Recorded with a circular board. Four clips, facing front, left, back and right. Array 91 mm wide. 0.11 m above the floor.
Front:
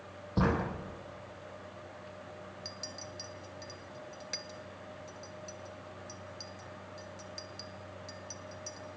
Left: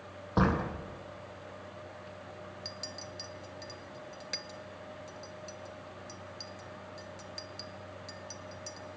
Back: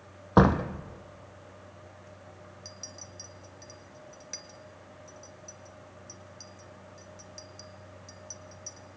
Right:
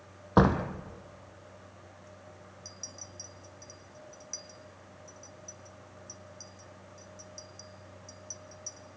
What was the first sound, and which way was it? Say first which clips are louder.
A door slam: right 5 dB, back 9 dB; 155° right.